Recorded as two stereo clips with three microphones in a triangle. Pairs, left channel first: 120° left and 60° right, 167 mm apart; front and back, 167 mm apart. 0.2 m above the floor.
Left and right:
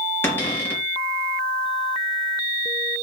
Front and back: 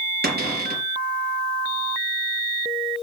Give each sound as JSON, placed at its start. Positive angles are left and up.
{"t": 0.2, "sound": "a cupboard door", "azimuth_deg": -165, "distance_m": 4.0}